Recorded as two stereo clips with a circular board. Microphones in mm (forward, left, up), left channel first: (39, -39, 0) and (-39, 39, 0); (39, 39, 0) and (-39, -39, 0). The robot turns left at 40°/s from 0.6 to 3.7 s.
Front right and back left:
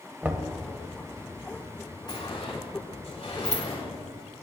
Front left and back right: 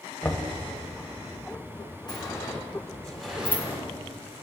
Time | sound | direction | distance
0.2 | knocking | 90° left | 0.9 m
2.1 | a sliding door | straight ahead | 3.5 m